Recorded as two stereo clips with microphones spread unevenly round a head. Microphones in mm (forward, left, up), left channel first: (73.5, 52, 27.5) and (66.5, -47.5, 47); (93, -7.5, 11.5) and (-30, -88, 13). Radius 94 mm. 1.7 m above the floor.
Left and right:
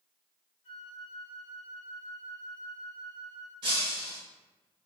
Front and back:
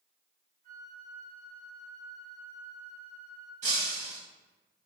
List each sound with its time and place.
0.6 s a flute: 95° left, 1.5 m
3.6 s breaking glass: 125° right, 2.5 m